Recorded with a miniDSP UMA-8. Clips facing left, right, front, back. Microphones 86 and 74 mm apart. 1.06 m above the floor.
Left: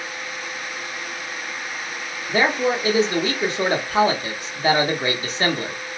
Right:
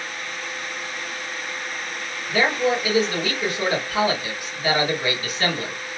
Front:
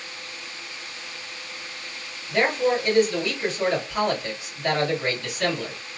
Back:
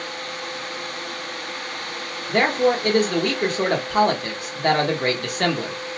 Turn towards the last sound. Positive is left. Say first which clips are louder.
# left 1 dB, back 3 dB
turn(degrees=150)